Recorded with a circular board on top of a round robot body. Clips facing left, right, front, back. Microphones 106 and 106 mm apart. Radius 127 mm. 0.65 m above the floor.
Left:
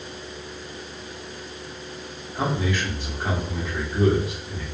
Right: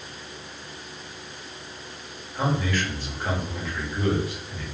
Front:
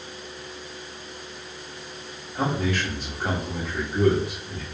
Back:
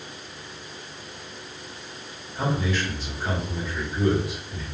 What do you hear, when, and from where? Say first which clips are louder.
2.4 s a man speaking: even, front 1 dB; 20° left, 1.7 m